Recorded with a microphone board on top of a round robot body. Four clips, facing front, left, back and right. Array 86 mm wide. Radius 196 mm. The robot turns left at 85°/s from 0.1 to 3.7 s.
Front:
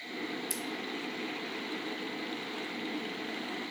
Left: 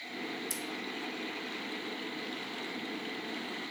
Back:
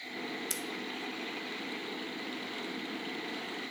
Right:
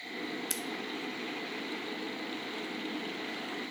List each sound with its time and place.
0.5 s scissors: 110° right, 0.8 m; by 0.6 s 120° right, 0.8 m